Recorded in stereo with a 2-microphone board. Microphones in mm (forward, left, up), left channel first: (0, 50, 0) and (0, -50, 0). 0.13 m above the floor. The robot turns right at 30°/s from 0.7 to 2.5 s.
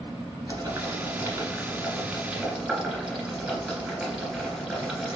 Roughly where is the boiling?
Right.